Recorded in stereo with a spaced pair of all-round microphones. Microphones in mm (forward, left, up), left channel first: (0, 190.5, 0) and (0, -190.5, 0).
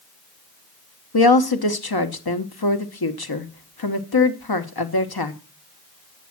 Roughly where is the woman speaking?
Left.